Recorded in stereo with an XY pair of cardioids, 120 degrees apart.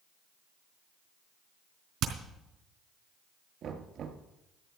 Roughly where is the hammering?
Ahead right.